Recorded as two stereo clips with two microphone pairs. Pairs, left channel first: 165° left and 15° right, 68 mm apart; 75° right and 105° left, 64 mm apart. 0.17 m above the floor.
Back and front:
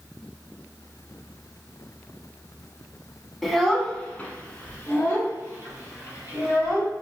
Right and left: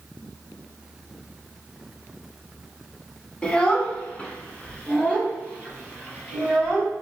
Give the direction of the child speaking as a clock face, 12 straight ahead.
4 o'clock.